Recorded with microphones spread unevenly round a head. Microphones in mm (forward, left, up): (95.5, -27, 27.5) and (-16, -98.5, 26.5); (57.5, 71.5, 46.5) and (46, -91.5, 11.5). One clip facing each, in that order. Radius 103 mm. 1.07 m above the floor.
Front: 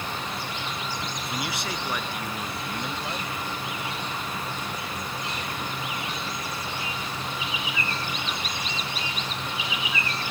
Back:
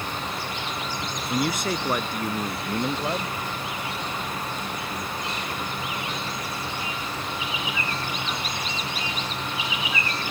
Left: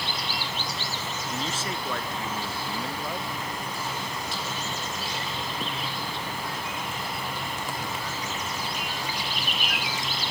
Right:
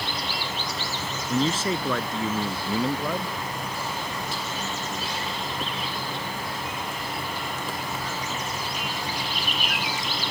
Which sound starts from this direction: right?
A man speaking, at 1.3 s.